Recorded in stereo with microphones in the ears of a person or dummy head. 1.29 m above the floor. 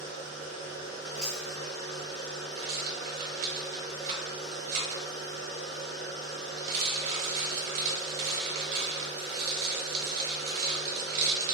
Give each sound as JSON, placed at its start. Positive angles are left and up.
{"t": 0.0, "sound": "a machine running", "side_deg": 30, "distance_m": 1.4}
{"t": 1.2, "sound": "chewing", "side_deg": 10, "distance_m": 1.1}
{"t": 2.6, "sound": "a rattle", "side_deg": -45, "distance_m": 1.0}